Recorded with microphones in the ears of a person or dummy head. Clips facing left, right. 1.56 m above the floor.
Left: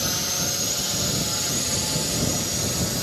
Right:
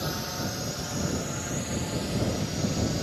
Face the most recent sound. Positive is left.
turn(degrees=65)  # may be behind; listen again after turning